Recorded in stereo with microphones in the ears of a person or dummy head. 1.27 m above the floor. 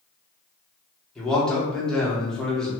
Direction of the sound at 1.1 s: 5° left (ahead or behind).